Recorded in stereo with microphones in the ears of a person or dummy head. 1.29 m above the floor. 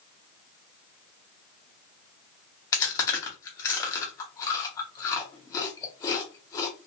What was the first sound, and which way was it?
Chewing, 20° left (ahead or behind).